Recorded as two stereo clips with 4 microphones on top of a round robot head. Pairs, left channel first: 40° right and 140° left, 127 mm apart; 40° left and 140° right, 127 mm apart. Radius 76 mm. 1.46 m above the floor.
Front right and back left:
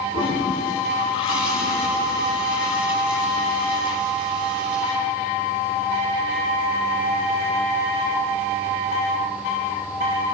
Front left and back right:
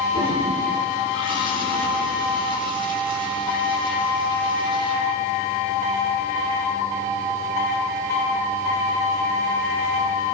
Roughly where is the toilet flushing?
Right.